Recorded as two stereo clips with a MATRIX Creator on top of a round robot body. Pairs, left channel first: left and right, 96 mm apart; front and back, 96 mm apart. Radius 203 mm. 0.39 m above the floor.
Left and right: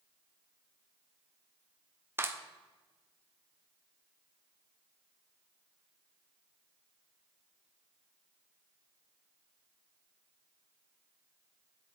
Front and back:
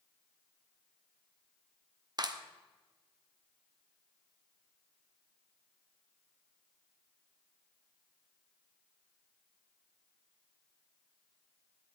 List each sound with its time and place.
2.2 s a clap: 150° right, 1.6 m